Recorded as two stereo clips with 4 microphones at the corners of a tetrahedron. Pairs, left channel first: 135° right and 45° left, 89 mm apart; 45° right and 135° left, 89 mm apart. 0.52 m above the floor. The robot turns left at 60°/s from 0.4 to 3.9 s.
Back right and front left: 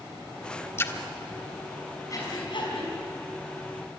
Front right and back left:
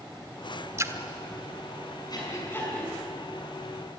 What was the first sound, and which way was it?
A splash, 175° left.